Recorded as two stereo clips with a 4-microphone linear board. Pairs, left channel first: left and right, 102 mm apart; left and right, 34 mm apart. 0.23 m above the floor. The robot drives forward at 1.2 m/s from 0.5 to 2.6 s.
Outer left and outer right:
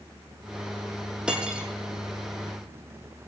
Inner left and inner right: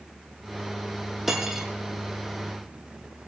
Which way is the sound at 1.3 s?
10° right (ahead or behind).